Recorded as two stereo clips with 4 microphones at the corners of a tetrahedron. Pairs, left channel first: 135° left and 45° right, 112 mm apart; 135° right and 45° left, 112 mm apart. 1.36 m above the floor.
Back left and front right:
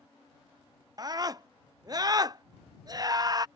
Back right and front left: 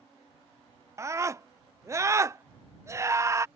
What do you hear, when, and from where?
1.0 s a scream: 10° right